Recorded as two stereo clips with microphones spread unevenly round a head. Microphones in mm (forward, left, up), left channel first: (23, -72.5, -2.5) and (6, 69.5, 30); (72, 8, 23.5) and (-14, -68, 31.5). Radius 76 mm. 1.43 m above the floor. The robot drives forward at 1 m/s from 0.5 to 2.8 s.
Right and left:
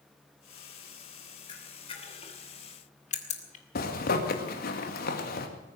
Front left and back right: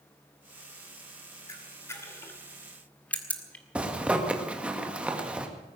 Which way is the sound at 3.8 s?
60° right.